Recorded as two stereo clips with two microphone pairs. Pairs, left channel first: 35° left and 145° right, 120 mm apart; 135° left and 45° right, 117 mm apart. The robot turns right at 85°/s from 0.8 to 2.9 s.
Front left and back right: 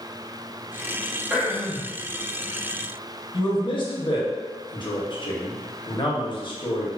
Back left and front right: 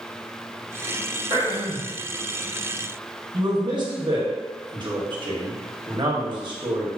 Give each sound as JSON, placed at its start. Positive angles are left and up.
{"t": 1.3, "sound": "throat clearing", "azimuth_deg": -65, "distance_m": 0.7}
{"t": 3.3, "sound": "a man speaking", "azimuth_deg": 0, "distance_m": 0.7}